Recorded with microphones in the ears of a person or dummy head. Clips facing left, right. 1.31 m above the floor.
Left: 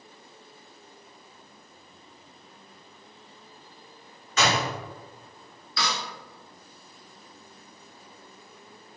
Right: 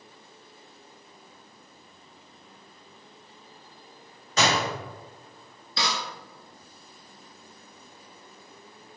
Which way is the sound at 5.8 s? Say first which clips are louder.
Right 1 dB; 25° right (ahead or behind).